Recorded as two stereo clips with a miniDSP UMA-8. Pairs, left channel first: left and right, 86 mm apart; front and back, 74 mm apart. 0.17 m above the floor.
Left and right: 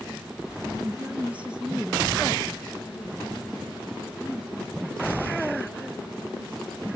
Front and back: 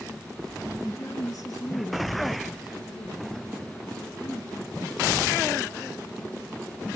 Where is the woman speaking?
35° right, 1.7 m; by 6.9 s 10° left, 8.5 m.